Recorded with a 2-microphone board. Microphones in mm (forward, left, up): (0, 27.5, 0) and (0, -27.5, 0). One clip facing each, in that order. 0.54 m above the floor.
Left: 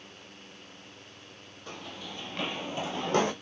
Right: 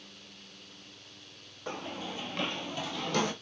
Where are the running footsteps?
30° right (ahead or behind), 0.9 m; by 3.3 s 35° left (ahead or behind), 1.1 m.